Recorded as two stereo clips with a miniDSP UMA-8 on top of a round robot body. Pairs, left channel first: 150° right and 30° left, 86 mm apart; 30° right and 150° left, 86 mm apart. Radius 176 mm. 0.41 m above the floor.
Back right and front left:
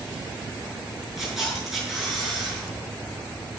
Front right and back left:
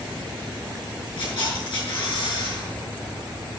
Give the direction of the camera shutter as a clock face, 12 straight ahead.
2 o'clock.